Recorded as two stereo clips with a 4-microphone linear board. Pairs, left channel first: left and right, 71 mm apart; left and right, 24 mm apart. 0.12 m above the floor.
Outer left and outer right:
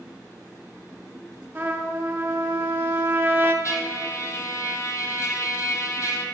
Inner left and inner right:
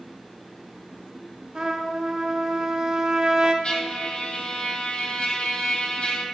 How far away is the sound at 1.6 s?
About 1.3 m.